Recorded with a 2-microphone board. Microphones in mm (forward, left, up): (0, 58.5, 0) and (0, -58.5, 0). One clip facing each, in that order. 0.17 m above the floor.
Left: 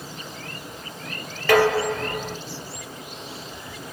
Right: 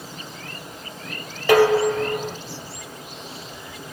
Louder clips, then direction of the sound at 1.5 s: Right 3 dB; 15° right (ahead or behind).